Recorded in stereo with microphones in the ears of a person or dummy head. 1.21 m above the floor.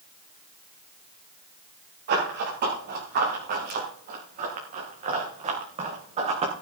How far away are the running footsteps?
About 7.5 m.